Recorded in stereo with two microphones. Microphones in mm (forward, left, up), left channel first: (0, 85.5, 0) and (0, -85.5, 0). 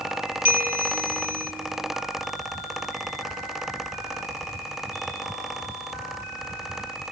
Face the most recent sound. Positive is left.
turn(degrees=-50)  # may be behind; listen again after turning